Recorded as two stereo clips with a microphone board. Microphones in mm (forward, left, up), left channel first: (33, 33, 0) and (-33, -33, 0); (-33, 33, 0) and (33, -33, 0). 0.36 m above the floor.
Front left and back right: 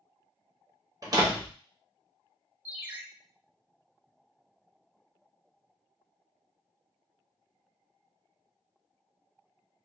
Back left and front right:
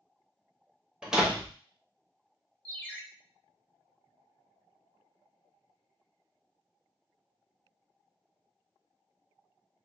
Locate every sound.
1.0 s a door slam: 125° right, 0.9 m
2.6 s a ringtone: 175° right, 0.6 m